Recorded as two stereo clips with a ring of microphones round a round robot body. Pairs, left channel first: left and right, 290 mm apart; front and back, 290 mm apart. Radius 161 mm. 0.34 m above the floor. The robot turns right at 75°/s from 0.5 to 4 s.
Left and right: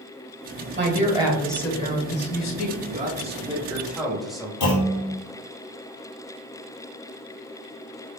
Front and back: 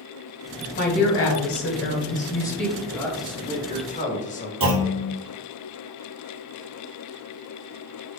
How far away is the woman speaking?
About 1.3 m.